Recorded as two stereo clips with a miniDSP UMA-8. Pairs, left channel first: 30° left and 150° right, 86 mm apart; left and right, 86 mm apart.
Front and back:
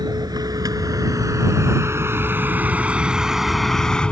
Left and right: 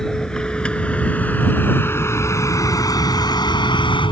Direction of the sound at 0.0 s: 170° left.